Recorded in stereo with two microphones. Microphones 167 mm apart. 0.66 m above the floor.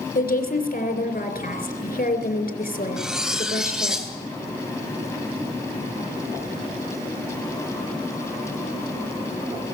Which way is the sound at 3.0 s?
5° right (ahead or behind).